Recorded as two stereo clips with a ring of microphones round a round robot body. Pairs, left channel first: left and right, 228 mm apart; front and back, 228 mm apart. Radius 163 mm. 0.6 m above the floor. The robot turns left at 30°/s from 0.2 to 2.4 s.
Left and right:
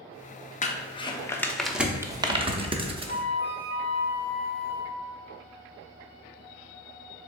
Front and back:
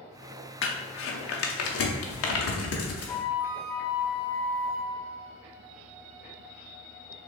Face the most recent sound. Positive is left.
turn(degrees=-85)